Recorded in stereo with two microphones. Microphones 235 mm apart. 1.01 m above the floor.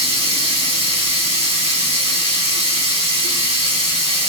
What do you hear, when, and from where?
0.0 s running water: 25° right (ahead or behind), 2 m